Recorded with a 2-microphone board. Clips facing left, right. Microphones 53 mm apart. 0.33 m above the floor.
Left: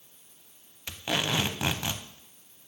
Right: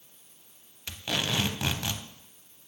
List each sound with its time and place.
0.9 s tape being pulled: 20° left (ahead or behind), 0.5 m